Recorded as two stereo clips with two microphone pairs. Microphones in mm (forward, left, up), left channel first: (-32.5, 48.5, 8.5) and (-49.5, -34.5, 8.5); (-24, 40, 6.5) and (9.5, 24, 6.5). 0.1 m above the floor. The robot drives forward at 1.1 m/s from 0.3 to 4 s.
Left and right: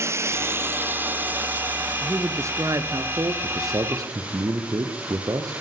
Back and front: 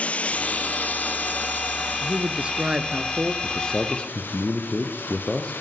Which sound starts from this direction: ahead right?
A man speaking, at 2.0 s.